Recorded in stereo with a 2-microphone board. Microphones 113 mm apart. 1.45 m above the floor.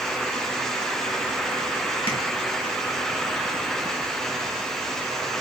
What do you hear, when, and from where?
2.1 s tapping: 50° left (ahead or behind), 1.2 m